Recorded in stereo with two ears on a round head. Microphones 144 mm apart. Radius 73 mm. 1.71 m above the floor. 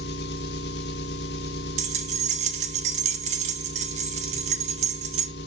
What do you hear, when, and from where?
0.0 s an engine running: 85° left, 2 m
1.8 s keys jangling: 45° right (ahead or behind), 1.7 m